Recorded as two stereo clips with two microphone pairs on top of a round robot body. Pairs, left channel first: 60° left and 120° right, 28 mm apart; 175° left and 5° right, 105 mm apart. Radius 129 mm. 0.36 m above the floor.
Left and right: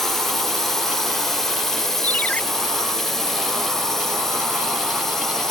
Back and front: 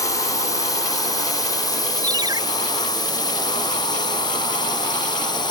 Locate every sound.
0.0 s a drone: 115° left; by 5.5 s 125° left
2.0 s a ringtone: 40° left